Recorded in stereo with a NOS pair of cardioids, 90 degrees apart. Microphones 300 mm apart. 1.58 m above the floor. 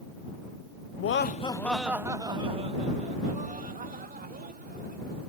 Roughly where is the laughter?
Ahead left.